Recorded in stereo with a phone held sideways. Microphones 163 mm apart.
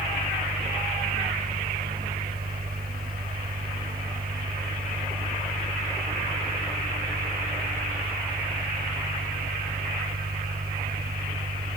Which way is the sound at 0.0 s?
80° right.